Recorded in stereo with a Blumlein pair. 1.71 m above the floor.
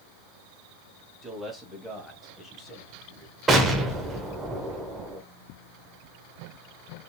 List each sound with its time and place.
1.2 s a man speaking: straight ahead, 1.9 m; by 3.4 s 40° left, 1.7 m
3.5 s an explosion: 15° right, 1.1 m